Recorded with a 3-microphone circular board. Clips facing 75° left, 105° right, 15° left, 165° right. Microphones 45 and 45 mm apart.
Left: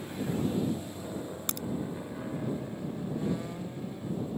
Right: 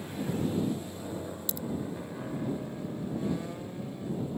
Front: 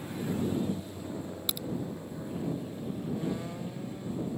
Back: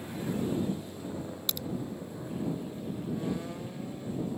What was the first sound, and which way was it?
A crack, 95° left.